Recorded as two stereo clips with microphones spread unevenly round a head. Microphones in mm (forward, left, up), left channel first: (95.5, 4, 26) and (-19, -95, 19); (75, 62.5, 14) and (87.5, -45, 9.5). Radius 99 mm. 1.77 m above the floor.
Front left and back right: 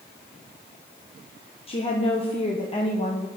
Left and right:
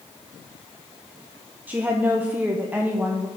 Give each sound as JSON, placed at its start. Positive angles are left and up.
{"t": 1.7, "sound": "a woman speaking", "azimuth_deg": -10, "distance_m": 1.4}